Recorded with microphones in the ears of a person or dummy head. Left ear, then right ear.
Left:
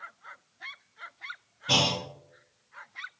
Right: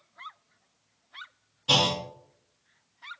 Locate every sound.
1.7 s a clunk: 40° right (ahead or behind), 0.7 m